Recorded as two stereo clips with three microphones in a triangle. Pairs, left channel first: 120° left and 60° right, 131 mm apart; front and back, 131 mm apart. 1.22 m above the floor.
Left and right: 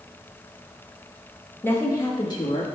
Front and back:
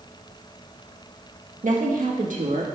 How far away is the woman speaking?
About 1.4 m.